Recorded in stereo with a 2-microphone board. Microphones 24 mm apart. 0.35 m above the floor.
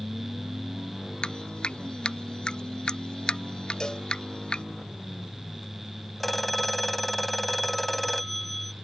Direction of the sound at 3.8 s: 35° left (ahead or behind).